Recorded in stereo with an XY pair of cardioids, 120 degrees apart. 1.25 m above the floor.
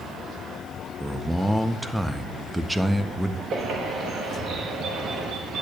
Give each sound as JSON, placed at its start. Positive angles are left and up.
{"t": 1.0, "sound": "a man speaking", "azimuth_deg": -5, "distance_m": 0.5}
{"t": 3.5, "sound": "a bird", "azimuth_deg": -55, "distance_m": 1.1}